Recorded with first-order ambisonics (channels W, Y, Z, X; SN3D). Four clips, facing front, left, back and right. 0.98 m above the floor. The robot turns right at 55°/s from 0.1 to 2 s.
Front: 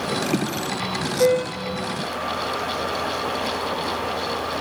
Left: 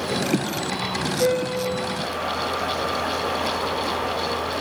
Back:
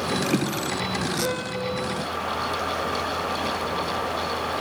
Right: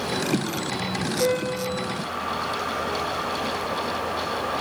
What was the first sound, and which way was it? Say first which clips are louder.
A piano: left 2 dB, front 7 dB; 5° left.